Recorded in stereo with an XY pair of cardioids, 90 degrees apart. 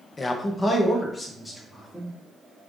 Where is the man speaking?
35° left, 0.6 m; by 2.2 s 15° left, 1.7 m.